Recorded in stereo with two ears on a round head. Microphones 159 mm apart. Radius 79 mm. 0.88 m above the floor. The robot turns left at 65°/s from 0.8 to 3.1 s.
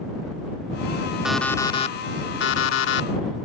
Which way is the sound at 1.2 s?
175° right.